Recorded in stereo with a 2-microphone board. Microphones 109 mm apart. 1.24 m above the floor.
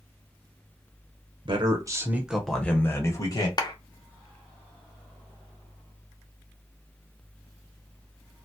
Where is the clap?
40° left (ahead or behind), 0.5 m.